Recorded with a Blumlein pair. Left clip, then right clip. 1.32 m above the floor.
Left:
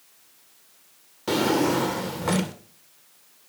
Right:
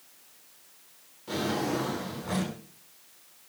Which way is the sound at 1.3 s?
35° left.